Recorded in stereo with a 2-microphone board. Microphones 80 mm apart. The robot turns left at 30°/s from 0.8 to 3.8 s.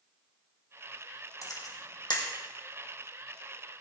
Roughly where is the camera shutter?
Left.